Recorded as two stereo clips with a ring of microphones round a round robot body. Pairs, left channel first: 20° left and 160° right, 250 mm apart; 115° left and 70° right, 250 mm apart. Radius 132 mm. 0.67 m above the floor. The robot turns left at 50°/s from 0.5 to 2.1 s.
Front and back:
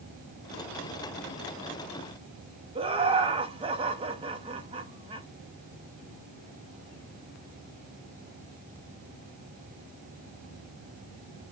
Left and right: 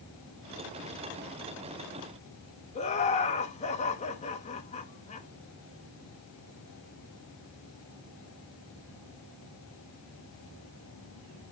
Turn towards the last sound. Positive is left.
turn(degrees=150)